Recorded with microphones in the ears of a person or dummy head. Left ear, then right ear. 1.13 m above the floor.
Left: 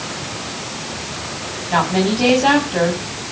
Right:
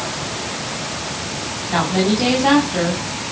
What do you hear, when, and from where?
1.7 s a woman speaking: 30° left (ahead or behind), 8.5 m